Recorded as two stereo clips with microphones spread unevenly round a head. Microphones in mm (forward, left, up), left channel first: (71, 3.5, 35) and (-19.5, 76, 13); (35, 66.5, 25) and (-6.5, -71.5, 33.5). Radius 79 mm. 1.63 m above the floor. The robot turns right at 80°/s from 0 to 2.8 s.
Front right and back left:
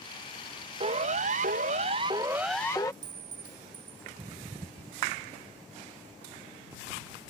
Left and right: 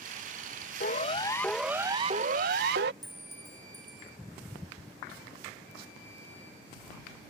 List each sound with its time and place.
0.8 s a siren: 105° left; by 2.9 s 110° right
3.0 s a clink: 175° left